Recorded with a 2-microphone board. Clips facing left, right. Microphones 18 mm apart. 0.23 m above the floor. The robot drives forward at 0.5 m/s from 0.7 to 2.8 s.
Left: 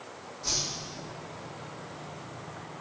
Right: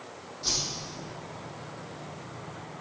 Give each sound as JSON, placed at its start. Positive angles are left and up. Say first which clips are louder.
{"t": 0.4, "sound": "a whoosh", "louder": "right 1 dB", "side_deg": -45, "distance_m": 3.0}